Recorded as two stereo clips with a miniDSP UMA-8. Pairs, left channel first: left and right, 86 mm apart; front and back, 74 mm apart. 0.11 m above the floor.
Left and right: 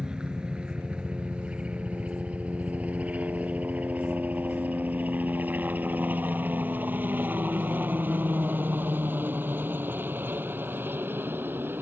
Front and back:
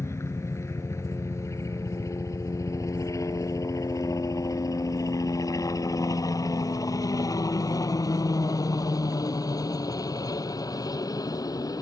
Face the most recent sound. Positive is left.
turn(degrees=-25)